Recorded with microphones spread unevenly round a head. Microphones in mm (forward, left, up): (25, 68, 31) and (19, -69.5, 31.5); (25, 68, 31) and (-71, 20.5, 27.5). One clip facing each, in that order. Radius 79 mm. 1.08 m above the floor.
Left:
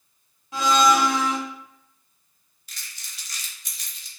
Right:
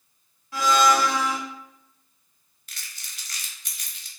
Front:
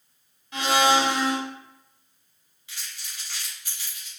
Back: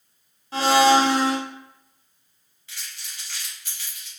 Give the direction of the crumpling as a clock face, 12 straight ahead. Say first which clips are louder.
Even, even; 2 o'clock.